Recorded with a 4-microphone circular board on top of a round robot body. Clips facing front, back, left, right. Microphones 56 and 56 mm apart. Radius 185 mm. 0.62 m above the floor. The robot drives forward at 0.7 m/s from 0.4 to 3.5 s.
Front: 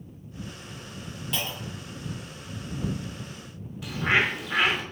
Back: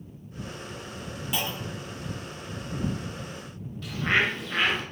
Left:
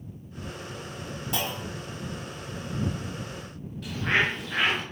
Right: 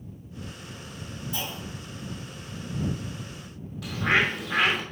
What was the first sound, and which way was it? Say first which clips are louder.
A clunk: back 1 dB, left 5 dB; 95° left.